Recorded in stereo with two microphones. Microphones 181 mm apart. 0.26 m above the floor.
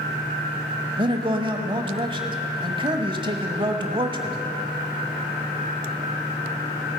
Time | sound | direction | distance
1.0 | a man speaking | 25° right (ahead or behind) | 1.0 m